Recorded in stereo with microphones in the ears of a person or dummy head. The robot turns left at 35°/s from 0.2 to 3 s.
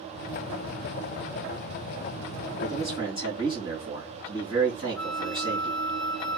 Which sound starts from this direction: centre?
A flute, at 5.0 s.